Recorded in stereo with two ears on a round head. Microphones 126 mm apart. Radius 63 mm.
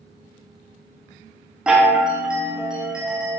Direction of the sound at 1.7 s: 5° right (ahead or behind).